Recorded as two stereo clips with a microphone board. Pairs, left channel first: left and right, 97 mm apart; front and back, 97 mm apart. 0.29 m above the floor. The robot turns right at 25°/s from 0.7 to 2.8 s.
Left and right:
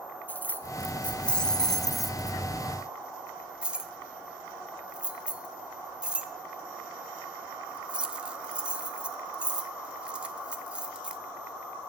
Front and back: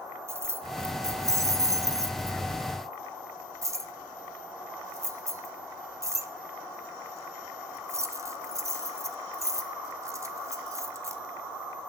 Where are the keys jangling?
145° left, 0.7 m; by 11.2 s 160° right, 0.7 m.